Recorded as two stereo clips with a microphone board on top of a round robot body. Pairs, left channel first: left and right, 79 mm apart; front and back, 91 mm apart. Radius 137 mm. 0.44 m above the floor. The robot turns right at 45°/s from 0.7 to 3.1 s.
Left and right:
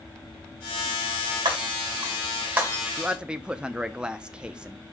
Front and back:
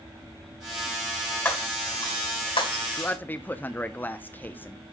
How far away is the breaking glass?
About 2.5 m.